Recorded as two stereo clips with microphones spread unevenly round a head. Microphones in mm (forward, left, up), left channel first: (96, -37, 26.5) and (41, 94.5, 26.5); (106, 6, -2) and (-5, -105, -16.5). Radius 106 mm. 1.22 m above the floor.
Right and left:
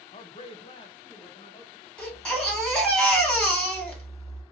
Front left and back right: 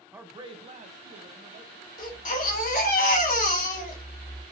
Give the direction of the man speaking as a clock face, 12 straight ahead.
2 o'clock.